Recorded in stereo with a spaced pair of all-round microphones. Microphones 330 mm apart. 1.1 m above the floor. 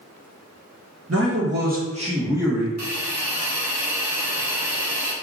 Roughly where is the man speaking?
Right.